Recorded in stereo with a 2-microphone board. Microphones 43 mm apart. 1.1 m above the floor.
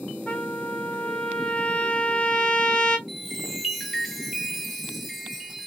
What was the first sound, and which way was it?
A trumpet, 30° left (ahead or behind).